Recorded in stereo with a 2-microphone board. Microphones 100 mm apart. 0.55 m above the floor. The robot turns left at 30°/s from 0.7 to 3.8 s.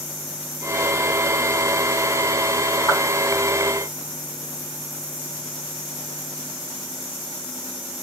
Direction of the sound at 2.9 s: 45° left (ahead or behind).